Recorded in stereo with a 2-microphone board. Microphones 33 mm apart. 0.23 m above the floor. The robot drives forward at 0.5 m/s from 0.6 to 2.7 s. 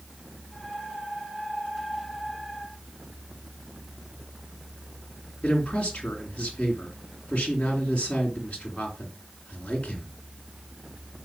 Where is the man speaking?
35° left (ahead or behind), 3.5 m.